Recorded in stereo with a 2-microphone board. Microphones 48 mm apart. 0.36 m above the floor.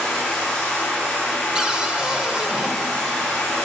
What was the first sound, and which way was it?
Running water, 10° left (ahead or behind).